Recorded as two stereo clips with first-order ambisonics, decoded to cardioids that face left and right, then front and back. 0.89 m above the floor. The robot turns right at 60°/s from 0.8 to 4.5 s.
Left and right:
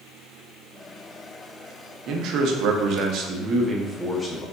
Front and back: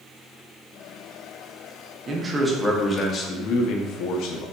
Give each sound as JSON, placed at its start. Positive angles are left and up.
{"t": 2.1, "sound": "a man speaking", "azimuth_deg": -120, "distance_m": 0.5}